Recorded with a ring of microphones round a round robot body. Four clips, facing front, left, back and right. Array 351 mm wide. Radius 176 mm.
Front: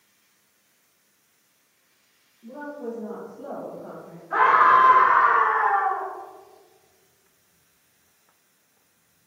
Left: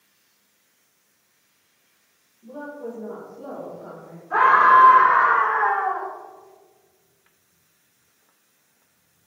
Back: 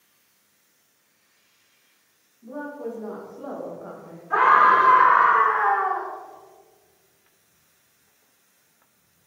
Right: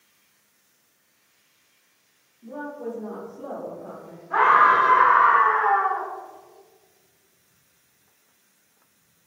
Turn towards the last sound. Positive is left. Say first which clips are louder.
# left 2 dB, even
turn(degrees=160)